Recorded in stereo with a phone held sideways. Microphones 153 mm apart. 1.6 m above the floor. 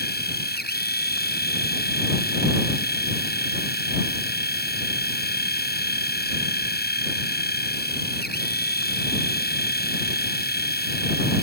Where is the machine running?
85° left.